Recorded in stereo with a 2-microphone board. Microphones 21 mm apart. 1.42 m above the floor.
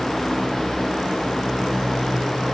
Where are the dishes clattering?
No dishes clattering in this recording.